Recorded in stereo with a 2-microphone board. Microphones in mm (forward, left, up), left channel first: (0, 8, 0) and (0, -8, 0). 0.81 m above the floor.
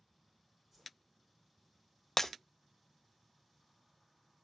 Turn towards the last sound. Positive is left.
turn(degrees=25)  # may be behind; listen again after turning